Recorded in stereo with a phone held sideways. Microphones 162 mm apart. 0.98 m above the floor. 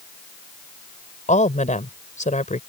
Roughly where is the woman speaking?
Left.